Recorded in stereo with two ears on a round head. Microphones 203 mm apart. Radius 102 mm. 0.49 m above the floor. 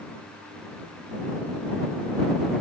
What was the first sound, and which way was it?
Only background noise.